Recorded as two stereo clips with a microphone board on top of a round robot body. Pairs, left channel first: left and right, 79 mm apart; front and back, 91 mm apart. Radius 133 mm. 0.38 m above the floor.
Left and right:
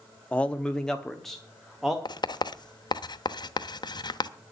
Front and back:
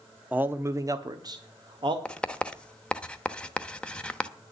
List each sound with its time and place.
0.3 s a man speaking: 135° left, 0.9 m; by 1.9 s straight behind, 1.5 m
2.0 s writing: 75° left, 0.9 m